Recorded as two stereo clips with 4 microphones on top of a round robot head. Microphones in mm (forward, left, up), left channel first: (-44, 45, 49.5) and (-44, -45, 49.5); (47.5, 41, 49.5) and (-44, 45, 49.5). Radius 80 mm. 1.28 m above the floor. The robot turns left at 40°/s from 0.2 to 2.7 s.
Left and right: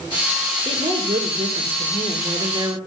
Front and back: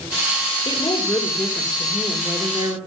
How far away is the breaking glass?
I don't hear breaking glass.